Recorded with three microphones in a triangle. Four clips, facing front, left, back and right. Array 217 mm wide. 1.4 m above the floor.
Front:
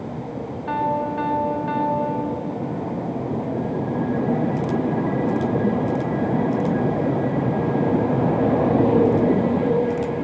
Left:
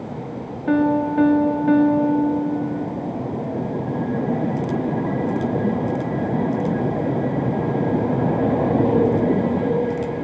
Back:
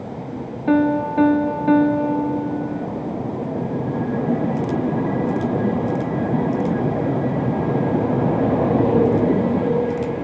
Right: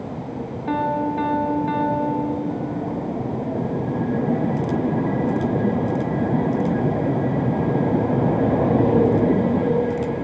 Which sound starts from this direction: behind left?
A piano, at 0.7 s.